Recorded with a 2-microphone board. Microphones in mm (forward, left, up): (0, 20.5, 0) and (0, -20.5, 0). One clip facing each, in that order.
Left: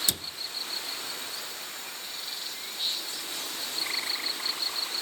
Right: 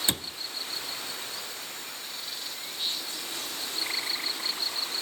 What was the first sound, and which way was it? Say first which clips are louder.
A cupboard door: right 3 dB; 30° right (ahead or behind).